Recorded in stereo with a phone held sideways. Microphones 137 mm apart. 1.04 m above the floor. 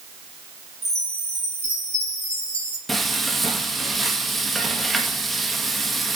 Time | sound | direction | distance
0.8 | a chime | 55° right (ahead or behind) | 3 m
2.9 | frying | centre (ahead or behind) | 1.8 m